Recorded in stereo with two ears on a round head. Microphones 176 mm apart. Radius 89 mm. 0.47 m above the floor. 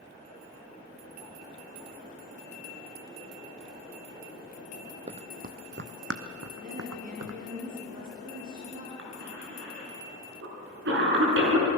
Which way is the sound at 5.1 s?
30° right (ahead or behind).